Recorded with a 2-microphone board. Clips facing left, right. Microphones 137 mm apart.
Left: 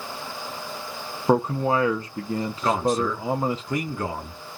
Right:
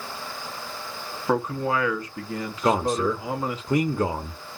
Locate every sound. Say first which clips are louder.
1.3 s a man speaking: left 3 dB; 30° left (ahead or behind), 0.7 m
2.6 s a man speaking: right 1 dB; 20° right (ahead or behind), 0.7 m